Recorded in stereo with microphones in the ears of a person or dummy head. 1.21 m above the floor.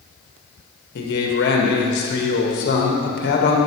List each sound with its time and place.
0.9 s a man speaking: 60° left (ahead or behind), 1.4 m